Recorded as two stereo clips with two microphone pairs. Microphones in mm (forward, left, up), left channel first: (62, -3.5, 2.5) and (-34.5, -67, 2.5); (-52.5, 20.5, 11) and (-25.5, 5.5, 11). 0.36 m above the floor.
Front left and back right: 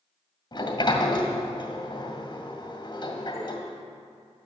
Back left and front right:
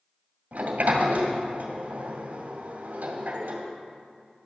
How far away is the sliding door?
About 2 m.